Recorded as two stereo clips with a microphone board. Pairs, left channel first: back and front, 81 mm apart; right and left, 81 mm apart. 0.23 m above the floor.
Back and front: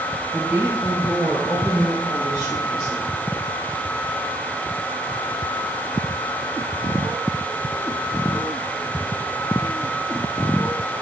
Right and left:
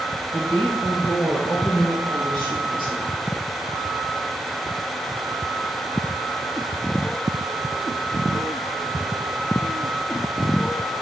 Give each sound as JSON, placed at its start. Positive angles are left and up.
{"t": 0.3, "sound": "a woman speaking", "azimuth_deg": 45, "distance_m": 1.5}